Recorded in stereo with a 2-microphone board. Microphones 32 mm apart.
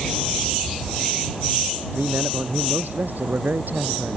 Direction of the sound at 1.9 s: 80° right.